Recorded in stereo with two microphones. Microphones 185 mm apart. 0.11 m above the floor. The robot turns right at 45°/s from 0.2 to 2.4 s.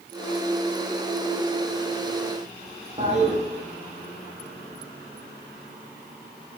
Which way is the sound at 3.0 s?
35° right (ahead or behind).